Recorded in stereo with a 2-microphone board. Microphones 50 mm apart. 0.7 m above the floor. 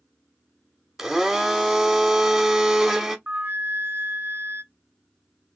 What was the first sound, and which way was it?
A blender, 10° right (ahead or behind).